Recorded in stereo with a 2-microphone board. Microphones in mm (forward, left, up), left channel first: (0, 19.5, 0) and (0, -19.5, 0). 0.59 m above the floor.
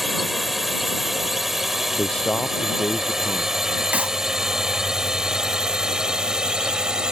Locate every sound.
0.0 s a drone: centre (ahead or behind); by 7.1 s 15° right (ahead or behind)
2.0 s a man speaking: 25° left (ahead or behind)
3.9 s a clap: 35° right (ahead or behind)